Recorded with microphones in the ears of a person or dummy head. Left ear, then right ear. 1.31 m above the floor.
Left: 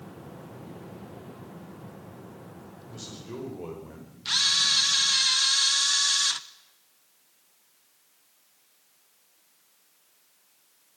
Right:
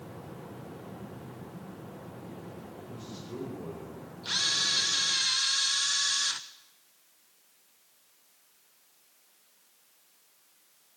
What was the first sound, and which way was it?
A man speaking, 90° left.